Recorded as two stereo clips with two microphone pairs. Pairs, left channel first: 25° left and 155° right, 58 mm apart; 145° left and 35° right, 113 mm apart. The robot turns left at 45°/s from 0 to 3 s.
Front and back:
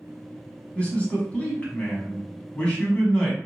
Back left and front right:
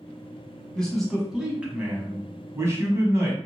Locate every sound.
0.8 s a man speaking: 70° left, 1.0 m; by 3.4 s 30° right, 1.0 m